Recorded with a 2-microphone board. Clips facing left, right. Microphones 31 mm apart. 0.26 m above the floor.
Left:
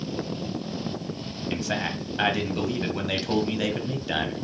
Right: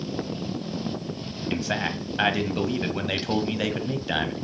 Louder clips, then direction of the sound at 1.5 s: Right 1 dB; 10° right (ahead or behind).